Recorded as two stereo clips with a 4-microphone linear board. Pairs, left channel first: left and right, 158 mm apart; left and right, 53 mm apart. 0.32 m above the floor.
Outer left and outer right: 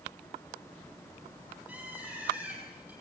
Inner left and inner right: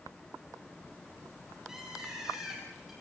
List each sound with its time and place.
1.7 s a bird: 10° right (ahead or behind), 8.5 m